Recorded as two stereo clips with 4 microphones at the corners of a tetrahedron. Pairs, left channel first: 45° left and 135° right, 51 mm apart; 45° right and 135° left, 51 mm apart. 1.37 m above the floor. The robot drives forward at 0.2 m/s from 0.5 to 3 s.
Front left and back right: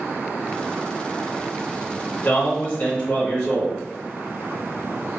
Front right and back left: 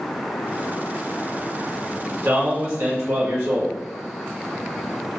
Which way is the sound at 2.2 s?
105° left.